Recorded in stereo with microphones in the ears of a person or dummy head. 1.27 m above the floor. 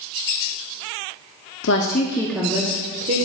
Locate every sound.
1.6 s a woman speaking: 65° left (ahead or behind), 0.9 m; by 3.2 s 45° right (ahead or behind), 1.5 m